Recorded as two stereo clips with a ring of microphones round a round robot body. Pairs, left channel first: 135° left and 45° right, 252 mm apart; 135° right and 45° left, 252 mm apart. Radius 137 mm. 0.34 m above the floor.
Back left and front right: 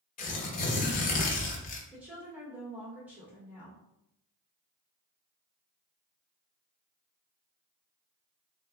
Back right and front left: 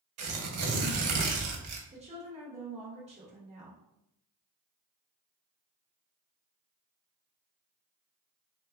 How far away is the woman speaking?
About 1.0 m.